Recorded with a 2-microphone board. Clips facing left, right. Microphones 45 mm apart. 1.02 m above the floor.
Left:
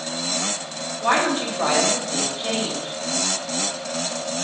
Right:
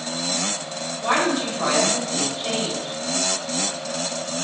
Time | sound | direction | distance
1.0 | a woman speaking | 30° left (ahead or behind) | 4 m